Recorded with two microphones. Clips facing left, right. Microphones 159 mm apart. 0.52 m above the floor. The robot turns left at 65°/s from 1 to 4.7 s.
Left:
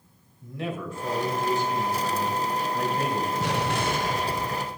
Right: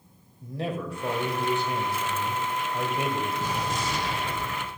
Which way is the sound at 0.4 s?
40° right.